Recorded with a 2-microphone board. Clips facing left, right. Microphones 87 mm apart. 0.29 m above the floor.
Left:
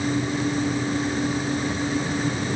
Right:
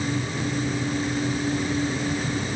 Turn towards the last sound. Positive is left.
No sound to turn to.